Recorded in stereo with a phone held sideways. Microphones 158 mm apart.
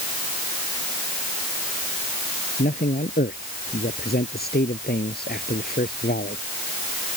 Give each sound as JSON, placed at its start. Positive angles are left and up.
{"t": 2.6, "sound": "a man speaking", "side_deg": 80}